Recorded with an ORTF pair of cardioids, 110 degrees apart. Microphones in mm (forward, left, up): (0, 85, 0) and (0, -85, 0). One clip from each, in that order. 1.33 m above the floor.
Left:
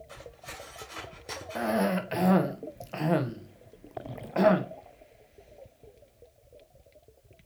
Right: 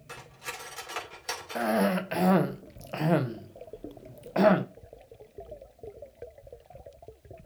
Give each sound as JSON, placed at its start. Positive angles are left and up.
{"t": 0.1, "sound": "cutlery clinking", "azimuth_deg": -65, "distance_m": 3.0}
{"t": 1.6, "sound": "a cough", "azimuth_deg": -10, "distance_m": 1.0}